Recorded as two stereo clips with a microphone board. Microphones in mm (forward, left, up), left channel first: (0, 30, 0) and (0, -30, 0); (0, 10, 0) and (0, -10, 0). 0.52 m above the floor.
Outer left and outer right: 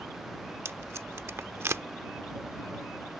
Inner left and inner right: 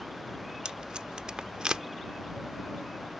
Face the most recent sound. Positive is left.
turn(degrees=-50)  # may be behind; listen again after turning